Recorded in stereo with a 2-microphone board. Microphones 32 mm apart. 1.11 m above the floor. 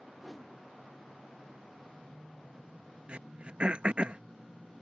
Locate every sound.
0.2 s a whoosh: centre (ahead or behind)
3.1 s throat clearing: 40° right (ahead or behind)